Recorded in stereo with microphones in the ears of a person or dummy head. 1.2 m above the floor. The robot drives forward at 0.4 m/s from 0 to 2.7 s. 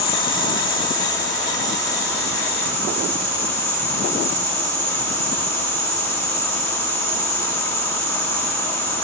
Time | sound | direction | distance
0.0 | an insect | 30° left (ahead or behind) | 1.3 m